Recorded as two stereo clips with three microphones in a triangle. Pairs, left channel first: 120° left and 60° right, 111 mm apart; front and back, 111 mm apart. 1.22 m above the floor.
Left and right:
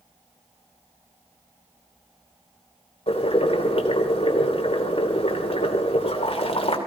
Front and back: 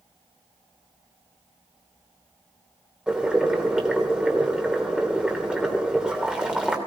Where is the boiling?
100° left, 3 m.